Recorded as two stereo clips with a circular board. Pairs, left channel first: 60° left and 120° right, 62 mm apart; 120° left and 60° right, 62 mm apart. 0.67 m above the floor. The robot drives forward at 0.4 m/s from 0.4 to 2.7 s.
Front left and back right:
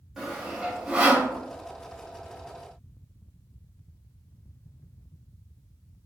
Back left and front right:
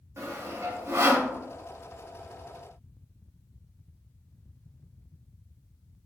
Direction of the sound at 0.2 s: 40° right.